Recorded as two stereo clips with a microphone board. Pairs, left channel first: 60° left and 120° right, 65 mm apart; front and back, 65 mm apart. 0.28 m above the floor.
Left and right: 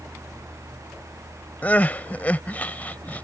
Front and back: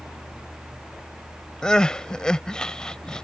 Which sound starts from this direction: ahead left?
Crying, at 1.6 s.